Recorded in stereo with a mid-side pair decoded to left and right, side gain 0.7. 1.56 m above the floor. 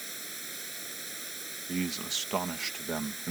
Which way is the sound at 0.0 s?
10° right.